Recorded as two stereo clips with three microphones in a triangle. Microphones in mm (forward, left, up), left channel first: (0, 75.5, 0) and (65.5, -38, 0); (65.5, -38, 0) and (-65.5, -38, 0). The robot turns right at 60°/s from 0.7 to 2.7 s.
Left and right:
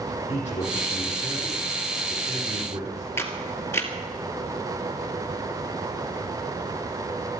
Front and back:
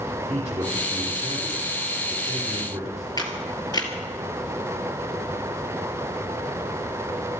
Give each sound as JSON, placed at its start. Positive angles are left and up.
{"t": 0.3, "sound": "a man speaking", "azimuth_deg": 150, "distance_m": 5.5}
{"t": 3.2, "sound": "a camera shutter", "azimuth_deg": 55, "distance_m": 2.0}